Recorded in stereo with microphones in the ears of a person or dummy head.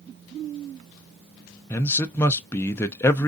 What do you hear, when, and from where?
1.7 s a man speaking: 15° left (ahead or behind), 0.6 m